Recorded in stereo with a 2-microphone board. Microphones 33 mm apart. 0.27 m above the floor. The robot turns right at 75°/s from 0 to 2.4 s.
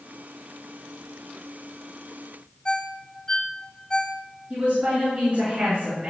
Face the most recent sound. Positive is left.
turn(degrees=-45)  # may be behind; listen again after turning